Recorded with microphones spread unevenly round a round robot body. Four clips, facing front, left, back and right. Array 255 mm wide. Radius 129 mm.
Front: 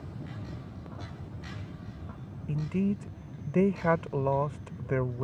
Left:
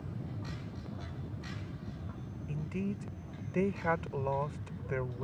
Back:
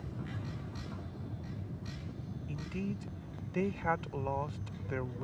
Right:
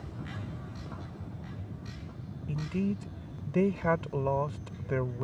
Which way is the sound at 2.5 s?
25° right.